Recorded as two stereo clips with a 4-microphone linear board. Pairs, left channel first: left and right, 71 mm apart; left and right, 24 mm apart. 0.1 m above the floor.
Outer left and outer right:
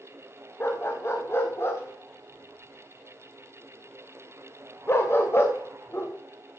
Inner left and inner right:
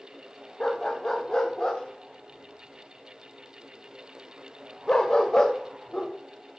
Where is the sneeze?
I don't hear a sneeze.